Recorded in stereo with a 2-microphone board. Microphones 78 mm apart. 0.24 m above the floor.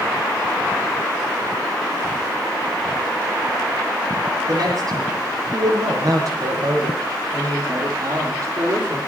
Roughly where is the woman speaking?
Right.